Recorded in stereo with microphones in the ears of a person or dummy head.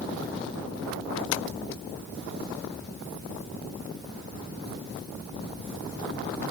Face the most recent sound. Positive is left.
turn(degrees=80)